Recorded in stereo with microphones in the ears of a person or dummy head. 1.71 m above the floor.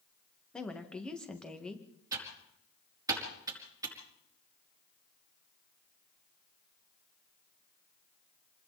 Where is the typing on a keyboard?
20° right (ahead or behind), 5.5 m.